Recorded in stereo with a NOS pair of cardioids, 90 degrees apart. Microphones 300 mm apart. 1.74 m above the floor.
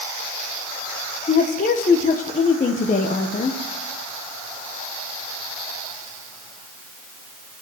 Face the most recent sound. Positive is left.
turn(degrees=25)